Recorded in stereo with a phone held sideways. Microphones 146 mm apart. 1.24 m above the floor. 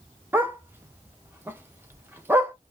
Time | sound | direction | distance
0.3 | a dog barking | 15° right (ahead or behind) | 0.7 m